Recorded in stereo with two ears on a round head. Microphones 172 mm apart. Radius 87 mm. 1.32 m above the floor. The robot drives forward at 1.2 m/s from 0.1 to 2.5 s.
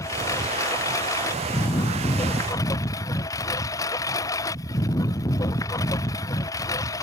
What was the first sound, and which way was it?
A lawn mower, 15° left (ahead or behind).